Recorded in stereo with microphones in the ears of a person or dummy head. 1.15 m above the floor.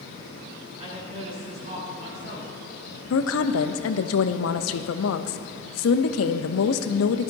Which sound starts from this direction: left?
A woman speaking, at 3.1 s.